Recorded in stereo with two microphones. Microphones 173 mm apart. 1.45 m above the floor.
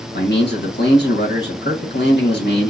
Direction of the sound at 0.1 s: 75° left (ahead or behind).